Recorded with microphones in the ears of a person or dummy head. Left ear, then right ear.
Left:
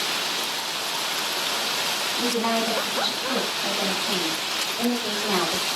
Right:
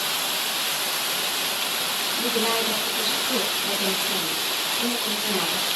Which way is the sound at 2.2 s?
85° left.